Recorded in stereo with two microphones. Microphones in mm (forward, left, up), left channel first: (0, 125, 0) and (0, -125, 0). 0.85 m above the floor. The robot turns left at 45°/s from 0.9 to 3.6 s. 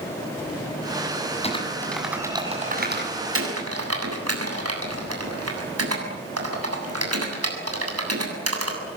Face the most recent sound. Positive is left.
turn(degrees=-70)  # may be behind; listen again after turning